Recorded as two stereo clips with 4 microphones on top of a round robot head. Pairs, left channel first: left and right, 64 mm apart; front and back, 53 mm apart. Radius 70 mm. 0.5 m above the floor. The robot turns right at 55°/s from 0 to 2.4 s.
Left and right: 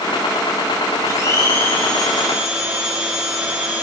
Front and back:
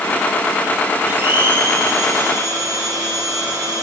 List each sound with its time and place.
1.1 s a blender: 125° left, 6 m; by 3.8 s 160° right, 6 m